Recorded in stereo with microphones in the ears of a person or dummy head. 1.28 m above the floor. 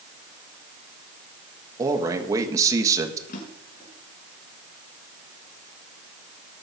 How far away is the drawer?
About 4.5 m.